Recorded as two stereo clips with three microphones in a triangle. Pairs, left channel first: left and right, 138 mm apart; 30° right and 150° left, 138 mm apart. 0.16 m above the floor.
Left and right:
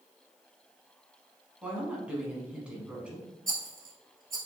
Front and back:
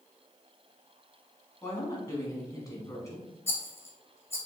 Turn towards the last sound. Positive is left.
turn(degrees=-105)